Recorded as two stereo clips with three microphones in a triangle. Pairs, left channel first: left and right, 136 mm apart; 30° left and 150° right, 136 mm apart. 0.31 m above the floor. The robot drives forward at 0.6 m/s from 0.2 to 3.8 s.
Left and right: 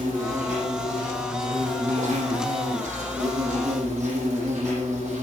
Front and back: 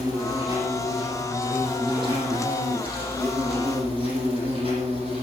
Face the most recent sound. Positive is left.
turn(degrees=-105)